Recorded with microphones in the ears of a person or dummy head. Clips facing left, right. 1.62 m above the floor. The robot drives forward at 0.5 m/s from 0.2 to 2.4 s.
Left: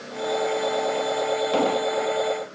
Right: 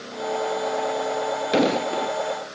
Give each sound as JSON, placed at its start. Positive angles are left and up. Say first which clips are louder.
{"t": 1.5, "sound": "an explosion", "louder": "right 4 dB", "side_deg": -25}